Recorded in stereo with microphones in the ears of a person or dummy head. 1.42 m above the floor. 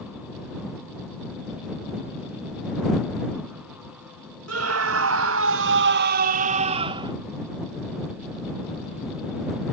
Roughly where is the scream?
Right.